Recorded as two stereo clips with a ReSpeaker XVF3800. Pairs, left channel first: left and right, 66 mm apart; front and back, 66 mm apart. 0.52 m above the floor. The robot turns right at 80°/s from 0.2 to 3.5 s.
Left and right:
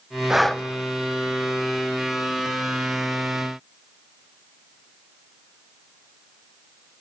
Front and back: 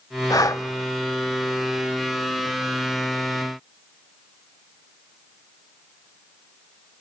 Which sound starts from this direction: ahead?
Breathing, at 0.3 s.